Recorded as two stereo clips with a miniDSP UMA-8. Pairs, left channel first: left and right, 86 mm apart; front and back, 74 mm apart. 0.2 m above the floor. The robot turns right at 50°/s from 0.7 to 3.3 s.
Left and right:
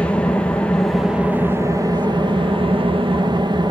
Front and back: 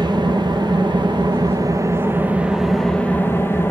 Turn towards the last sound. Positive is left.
turn(degrees=-60)